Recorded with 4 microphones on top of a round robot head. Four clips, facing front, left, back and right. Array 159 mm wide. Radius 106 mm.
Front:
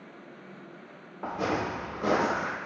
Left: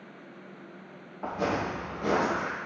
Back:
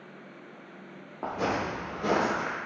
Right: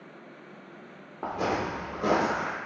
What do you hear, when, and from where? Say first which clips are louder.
1.2 s footsteps: right 1 dB, even; 135° right, 0.9 m; by 2.5 s 50° right, 0.7 m